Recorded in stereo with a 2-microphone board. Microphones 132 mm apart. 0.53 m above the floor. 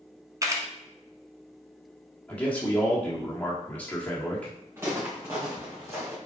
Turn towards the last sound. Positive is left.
turn(degrees=-20)  # may be behind; listen again after turning